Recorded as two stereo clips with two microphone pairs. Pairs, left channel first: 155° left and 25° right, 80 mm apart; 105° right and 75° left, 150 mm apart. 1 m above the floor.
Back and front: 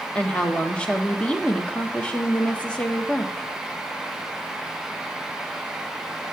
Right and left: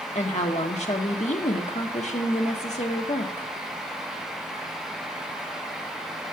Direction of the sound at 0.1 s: 135° right.